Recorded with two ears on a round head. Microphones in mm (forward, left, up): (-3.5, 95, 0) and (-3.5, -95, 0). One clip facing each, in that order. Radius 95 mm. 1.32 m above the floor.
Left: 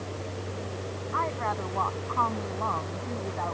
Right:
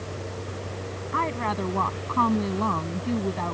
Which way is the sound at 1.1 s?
45° right (ahead or behind).